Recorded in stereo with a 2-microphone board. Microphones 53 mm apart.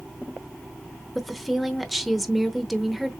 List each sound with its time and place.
1.1 s a woman speaking: centre (ahead or behind), 0.8 m